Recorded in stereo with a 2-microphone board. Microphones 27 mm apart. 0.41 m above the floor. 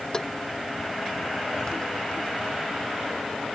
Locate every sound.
0.1 s tapping: 25° left (ahead or behind)